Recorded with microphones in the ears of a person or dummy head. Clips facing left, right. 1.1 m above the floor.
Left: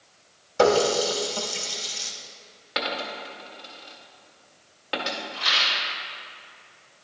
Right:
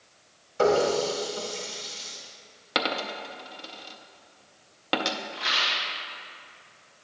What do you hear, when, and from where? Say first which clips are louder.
0.6 s a running tap: left 2 dB; 60° left (ahead or behind), 1.1 m
2.8 s a dropped coin: right 1 dB; 55° right (ahead or behind), 0.6 m
5.3 s a rattle: left 1 dB; 35° right (ahead or behind), 2.5 m